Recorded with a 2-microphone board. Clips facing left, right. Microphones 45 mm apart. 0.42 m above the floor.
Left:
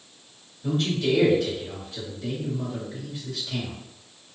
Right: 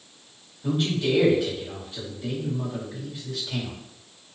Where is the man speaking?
10° right (ahead or behind), 1.7 m.